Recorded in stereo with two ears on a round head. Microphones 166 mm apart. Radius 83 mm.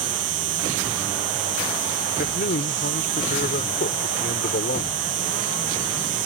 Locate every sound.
0.0 s an insect: 75° right (ahead or behind)
2.2 s a man speaking: 55° left (ahead or behind)